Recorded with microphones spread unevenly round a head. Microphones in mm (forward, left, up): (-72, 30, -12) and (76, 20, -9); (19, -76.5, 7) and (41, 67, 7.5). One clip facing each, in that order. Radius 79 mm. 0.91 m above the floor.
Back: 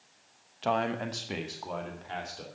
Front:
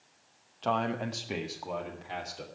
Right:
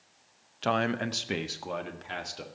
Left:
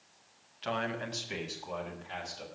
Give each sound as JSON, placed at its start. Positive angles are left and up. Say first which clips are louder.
{"t": 0.6, "sound": "a man speaking", "louder": "back 1 dB, right 7 dB", "azimuth_deg": -100, "distance_m": 0.8}